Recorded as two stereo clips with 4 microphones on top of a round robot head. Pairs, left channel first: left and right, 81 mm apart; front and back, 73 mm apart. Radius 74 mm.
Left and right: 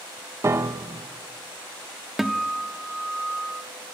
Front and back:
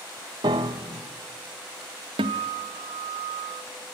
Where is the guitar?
Straight behind, 0.9 m.